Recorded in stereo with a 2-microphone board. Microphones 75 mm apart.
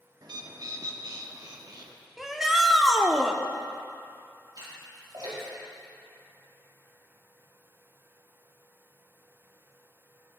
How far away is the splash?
About 5 m.